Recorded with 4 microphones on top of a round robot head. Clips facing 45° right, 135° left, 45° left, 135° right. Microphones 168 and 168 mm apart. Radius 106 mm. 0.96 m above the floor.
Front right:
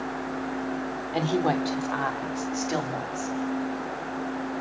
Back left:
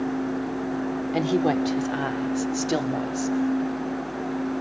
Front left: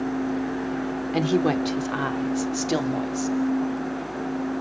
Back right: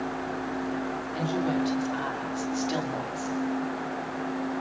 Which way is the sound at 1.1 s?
60° left.